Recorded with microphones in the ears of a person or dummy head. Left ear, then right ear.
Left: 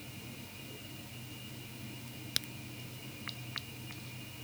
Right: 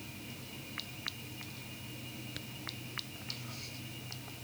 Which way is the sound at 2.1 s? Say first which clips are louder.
Left 10 dB; 85° left.